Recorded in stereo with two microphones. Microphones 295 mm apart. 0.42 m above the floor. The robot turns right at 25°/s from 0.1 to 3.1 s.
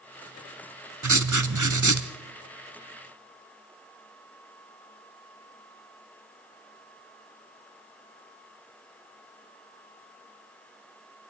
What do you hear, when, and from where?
1.0 s writing: 75° right (ahead or behind), 0.9 m